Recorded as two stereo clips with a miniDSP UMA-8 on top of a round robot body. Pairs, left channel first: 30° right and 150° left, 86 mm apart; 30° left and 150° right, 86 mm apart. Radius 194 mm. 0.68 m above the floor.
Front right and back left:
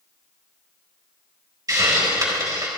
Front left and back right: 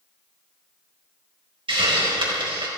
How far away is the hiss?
About 4 m.